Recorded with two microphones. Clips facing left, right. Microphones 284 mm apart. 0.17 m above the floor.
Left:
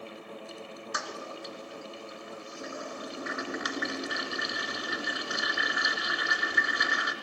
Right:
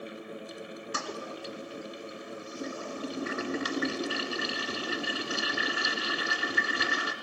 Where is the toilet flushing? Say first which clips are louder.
Right 3 dB; 35° right (ahead or behind), 2.5 m.